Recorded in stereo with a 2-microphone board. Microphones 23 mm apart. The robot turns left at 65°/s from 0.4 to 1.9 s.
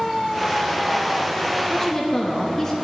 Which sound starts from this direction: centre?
A woman speaking, at 1.7 s.